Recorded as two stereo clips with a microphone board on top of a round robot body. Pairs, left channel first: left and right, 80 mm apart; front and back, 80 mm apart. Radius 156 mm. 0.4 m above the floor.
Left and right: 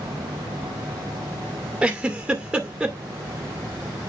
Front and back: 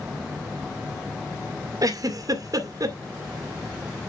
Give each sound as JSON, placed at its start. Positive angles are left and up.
{"t": 1.8, "sound": "a giggle", "azimuth_deg": -165, "distance_m": 2.0}